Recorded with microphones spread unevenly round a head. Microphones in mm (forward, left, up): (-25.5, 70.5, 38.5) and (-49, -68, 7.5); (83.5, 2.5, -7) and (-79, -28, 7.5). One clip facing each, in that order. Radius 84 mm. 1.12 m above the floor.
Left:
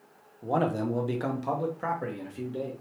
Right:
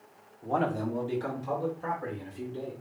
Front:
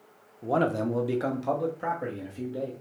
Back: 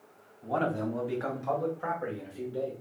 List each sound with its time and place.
0.4 s a man speaking: 10° left, 0.9 m; by 2.7 s 80° left, 1.7 m